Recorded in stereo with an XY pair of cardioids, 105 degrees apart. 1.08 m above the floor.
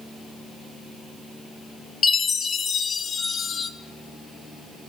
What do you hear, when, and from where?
2.0 s a chime: 45° left, 1.0 m